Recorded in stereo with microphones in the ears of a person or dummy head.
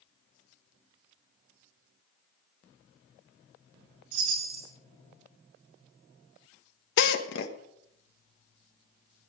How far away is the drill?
About 1.5 m.